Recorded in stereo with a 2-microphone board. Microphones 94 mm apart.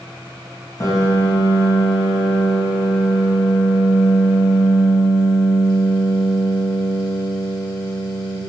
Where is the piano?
40° left (ahead or behind), 3.5 m.